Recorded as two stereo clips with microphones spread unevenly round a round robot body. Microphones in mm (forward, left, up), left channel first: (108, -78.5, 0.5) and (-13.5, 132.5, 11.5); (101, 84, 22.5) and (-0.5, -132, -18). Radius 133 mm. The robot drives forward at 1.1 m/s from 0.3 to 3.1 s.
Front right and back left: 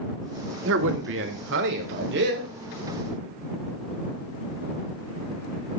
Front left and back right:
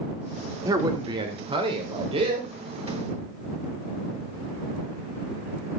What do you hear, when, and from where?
0.7 s a man speaking: 170° left, 1.9 m; by 2.6 s 175° left, 4 m